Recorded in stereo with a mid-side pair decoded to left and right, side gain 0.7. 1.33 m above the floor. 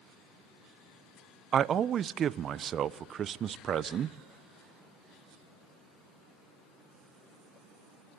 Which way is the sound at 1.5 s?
40° right.